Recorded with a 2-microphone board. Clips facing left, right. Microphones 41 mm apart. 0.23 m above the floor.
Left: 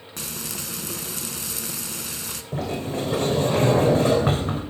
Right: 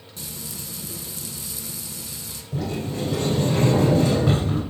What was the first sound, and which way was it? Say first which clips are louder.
Frying: left 4 dB; 75° left (ahead or behind).